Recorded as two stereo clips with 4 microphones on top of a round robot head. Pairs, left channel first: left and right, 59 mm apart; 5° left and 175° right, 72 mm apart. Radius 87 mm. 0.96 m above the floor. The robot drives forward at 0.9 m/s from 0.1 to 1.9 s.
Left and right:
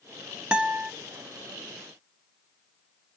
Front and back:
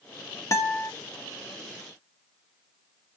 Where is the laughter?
No laughter in this recording.